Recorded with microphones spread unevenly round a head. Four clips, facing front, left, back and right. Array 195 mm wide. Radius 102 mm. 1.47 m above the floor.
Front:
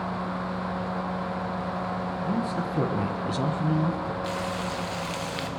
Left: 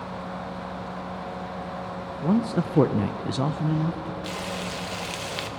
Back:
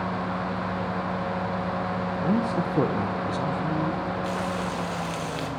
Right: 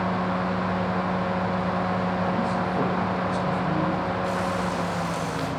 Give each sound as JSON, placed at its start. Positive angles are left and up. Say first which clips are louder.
{"t": 2.2, "sound": "a man speaking", "louder": "left 1 dB, back 5 dB", "azimuth_deg": 115, "distance_m": 1.6}
{"t": 4.2, "sound": "frying", "louder": "right 6 dB, back 2 dB", "azimuth_deg": 130, "distance_m": 1.2}